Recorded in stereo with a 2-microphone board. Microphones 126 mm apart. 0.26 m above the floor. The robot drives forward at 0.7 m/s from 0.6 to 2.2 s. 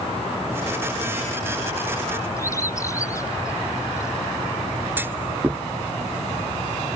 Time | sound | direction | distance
2.4 | a bird | 25° left (ahead or behind) | ?
5.0 | a clunk | 15° right (ahead or behind) | ?